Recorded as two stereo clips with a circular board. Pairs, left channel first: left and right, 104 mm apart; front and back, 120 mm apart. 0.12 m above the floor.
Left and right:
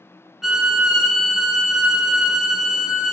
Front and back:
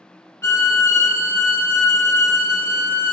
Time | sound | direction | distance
0.4 | a violin | 10° right | 0.8 m